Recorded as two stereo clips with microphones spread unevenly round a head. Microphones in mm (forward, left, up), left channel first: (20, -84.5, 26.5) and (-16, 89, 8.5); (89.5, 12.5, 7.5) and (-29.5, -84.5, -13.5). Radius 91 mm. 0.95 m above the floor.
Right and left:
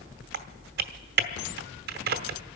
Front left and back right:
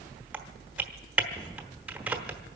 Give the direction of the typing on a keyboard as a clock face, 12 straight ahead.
8 o'clock.